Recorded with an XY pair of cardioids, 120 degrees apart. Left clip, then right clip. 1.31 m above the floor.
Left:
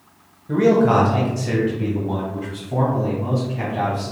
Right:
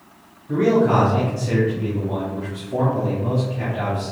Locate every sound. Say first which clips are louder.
0.5 s a man speaking: left 2 dB; 40° left, 1.4 m; by 4.1 s 70° left, 3 m